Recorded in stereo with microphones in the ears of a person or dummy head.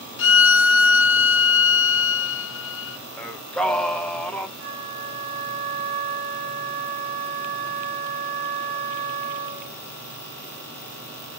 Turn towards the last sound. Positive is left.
turn(degrees=-55)  # may be behind; listen again after turning